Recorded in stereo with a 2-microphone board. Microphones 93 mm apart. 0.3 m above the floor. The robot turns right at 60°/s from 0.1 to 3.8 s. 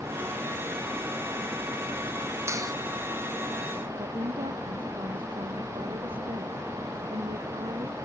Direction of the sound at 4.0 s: 70° right (ahead or behind).